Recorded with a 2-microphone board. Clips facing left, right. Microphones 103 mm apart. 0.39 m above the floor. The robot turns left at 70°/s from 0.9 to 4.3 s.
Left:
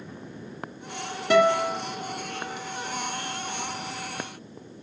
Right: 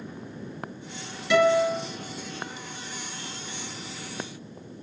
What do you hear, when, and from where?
1.3 s a guitar: 45° left, 2.0 m; by 1.8 s 15° left, 2.0 m